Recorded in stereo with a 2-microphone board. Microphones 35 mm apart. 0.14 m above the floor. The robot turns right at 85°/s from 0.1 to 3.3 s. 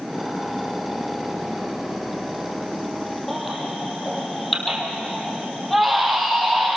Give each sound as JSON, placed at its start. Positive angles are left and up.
{"t": 3.3, "sound": "a baby crying", "side_deg": 0, "distance_m": 3.5}